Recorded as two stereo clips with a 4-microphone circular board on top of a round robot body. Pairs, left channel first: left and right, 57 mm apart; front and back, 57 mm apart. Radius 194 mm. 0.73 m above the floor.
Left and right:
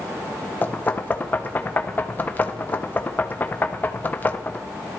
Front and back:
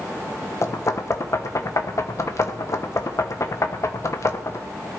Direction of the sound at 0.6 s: 30° left.